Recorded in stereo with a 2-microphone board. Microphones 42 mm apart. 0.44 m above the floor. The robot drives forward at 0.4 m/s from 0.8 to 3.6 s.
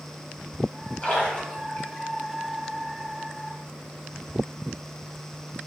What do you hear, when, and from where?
1.0 s a splash: 25° left (ahead or behind), 3 m